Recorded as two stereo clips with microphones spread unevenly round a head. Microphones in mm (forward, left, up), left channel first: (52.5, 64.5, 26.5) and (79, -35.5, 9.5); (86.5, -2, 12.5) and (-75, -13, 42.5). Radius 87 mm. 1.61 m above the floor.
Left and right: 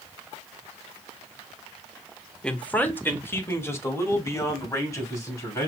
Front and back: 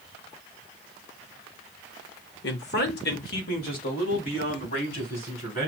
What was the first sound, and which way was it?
A man speaking, 25° left.